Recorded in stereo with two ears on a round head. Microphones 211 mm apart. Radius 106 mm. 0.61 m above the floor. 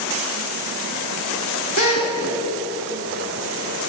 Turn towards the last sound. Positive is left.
turn(degrees=70)  # may be behind; listen again after turning